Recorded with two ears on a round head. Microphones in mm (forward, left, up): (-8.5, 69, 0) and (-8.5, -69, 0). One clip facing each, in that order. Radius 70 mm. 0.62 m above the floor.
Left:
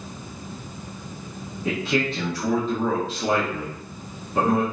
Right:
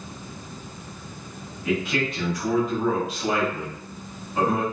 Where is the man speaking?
25° left (ahead or behind), 0.7 m.